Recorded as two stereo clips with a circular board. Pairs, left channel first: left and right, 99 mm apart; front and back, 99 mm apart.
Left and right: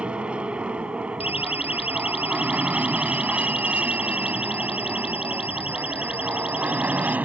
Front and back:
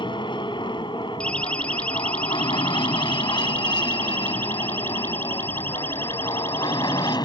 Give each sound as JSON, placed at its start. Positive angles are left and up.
{"t": 0.0, "sound": "an aircraft", "azimuth_deg": -15}
{"t": 1.2, "sound": "a siren", "azimuth_deg": 80}